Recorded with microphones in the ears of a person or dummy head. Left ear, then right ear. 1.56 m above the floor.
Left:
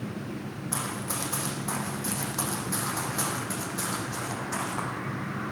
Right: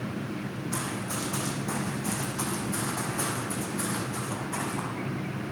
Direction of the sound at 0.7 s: 50° left (ahead or behind).